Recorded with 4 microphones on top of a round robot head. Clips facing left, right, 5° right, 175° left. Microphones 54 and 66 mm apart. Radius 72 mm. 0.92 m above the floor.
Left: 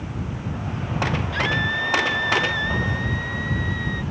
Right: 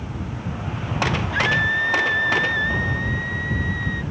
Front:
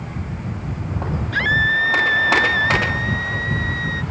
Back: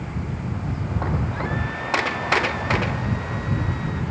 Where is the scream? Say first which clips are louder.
Right 5 dB, front 10 dB; 15° right; by 4.0 s 10° right.